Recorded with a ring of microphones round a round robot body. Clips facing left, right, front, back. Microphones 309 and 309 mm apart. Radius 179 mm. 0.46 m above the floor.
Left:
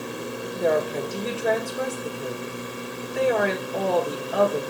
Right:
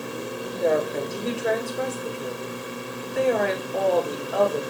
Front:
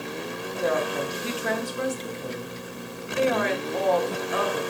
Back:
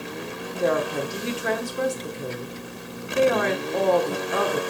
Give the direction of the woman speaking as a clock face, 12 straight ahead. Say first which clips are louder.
Even, back 3 dB; 6 o'clock.